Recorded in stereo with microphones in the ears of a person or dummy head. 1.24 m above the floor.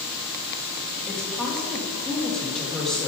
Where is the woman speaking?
Centre (ahead or behind), 1.9 m.